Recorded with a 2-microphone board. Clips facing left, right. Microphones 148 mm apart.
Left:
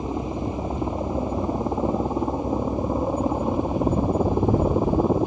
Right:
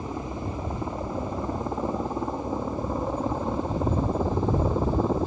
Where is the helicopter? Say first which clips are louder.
Left 5 dB; 20° left (ahead or behind); by 5.3 s 15° left (ahead or behind).